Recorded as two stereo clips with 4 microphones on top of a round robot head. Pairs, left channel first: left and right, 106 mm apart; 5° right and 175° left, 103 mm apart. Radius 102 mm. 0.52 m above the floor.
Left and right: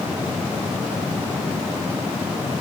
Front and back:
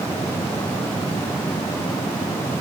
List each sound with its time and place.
Only background noise.